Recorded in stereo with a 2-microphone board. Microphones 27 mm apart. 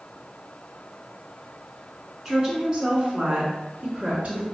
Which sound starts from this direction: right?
A woman speaking, at 2.2 s.